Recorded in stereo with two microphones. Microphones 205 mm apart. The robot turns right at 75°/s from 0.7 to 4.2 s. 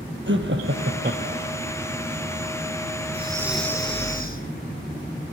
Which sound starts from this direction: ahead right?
Breathing, at 3.1 s.